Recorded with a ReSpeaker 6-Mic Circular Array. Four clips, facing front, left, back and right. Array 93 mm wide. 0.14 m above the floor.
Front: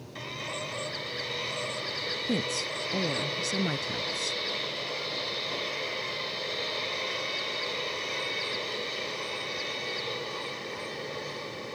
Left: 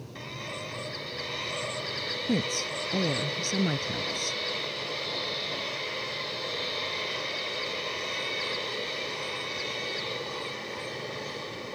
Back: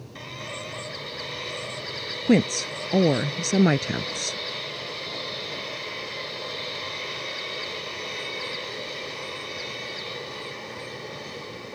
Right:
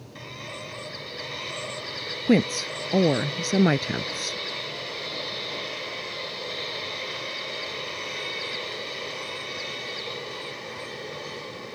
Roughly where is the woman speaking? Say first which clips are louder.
Right 9 dB, back 12 dB; behind right.